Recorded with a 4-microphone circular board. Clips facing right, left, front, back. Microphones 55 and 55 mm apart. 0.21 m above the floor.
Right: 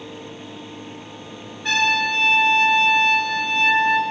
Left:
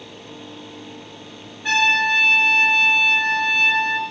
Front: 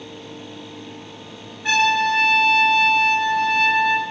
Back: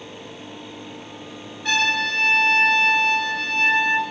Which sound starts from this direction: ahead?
A trumpet, at 1.6 s.